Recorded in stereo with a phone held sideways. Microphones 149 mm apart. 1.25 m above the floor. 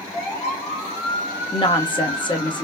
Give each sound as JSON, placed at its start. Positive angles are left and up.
{"t": 1.5, "sound": "a woman speaking", "side_deg": 30, "distance_m": 0.9}